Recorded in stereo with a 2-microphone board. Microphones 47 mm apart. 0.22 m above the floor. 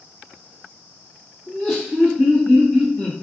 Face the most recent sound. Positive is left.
turn(degrees=-5)  # may be behind; listen again after turning